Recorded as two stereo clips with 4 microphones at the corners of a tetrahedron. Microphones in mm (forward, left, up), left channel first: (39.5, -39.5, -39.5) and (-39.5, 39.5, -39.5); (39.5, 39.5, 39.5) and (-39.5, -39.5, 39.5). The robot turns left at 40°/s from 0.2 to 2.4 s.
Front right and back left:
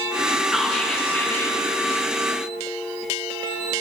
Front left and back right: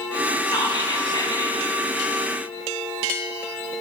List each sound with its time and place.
0.5 s whispering: 50° left, 2 m; by 1.6 s 5° left, 2 m